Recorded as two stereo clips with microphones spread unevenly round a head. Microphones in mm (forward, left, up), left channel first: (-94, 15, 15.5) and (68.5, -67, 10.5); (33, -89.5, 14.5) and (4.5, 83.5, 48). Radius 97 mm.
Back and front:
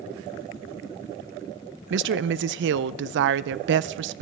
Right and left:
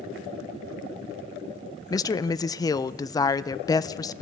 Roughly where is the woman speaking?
Ahead.